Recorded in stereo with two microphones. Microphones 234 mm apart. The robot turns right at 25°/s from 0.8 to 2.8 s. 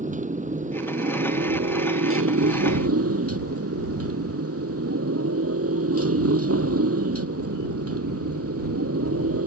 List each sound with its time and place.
0.0 s a motorcycle: 145° right; by 9.5 s 95° right